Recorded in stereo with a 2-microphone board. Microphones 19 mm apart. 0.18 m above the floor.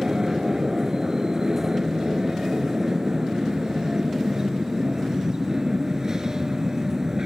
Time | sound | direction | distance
0.0 | an aircraft | 35° right (ahead or behind) | ?